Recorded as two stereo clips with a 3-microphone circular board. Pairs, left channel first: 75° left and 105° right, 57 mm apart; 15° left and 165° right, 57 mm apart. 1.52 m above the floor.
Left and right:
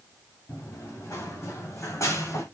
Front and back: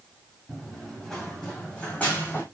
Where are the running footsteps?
100° left, 5 m; by 2.4 s 70° left, 3.5 m.